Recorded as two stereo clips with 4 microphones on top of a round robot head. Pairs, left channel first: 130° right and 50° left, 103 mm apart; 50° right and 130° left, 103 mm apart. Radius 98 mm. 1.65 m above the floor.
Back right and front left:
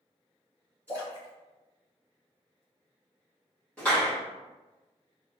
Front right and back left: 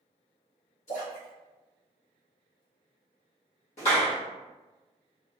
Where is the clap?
50° right, 1.7 m.